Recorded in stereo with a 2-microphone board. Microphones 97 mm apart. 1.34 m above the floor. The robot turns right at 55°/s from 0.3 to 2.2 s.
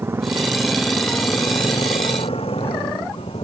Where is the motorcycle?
25° right (ahead or behind); by 3.4 s 75° left (ahead or behind).